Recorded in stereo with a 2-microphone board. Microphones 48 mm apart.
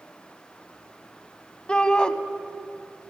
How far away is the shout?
About 1.2 m.